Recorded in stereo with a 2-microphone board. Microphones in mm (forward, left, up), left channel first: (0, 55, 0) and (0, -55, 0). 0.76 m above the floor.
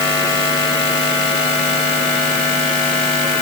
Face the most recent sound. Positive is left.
No sound to turn to.